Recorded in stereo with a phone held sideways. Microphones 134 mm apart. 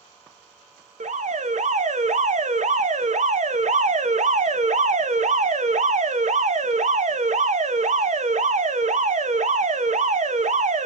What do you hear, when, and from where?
1.0 s an alarm: 70° right (ahead or behind), 0.5 m